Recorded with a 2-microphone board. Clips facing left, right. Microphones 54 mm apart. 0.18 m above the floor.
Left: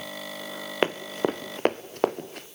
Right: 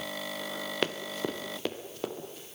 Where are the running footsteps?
30° left (ahead or behind), 1.0 m; by 2.5 s 65° left (ahead or behind), 1.4 m.